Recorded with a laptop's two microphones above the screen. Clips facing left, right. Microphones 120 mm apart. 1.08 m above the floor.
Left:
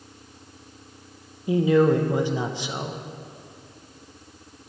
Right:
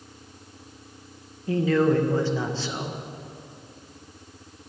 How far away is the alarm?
No alarm in this recording.